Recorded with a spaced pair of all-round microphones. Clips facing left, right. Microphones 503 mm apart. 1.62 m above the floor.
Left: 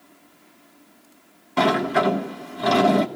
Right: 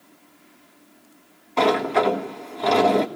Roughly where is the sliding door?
Left.